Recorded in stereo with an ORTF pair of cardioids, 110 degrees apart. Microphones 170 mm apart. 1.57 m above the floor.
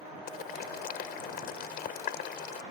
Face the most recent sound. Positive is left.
turn(degrees=70)